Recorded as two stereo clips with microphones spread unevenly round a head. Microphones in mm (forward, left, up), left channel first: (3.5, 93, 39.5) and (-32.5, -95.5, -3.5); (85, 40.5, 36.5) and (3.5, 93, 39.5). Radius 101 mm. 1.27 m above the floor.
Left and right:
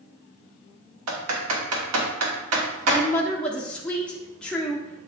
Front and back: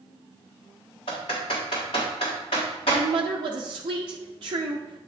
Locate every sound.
1.1 s typing on a keyboard: 95° right, 1.4 m
2.9 s a woman speaking: 170° left, 0.9 m